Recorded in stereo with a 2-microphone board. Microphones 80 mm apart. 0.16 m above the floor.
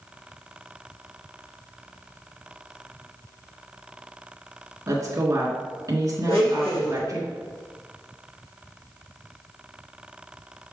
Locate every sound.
4.9 s a woman speaking: 45° right (ahead or behind), 2 m
6.3 s a blender: 50° left (ahead or behind), 3 m